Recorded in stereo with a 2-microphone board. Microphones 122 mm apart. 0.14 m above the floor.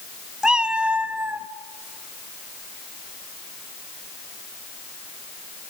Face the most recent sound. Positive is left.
turn(degrees=-15)  # may be behind; listen again after turning